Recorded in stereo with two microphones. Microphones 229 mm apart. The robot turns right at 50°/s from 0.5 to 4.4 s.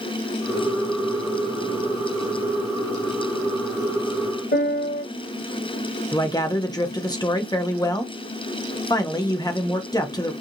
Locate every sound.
4.5 s a piano: 45° left (ahead or behind), 1.0 m
6.1 s a man speaking: 20° left (ahead or behind), 0.6 m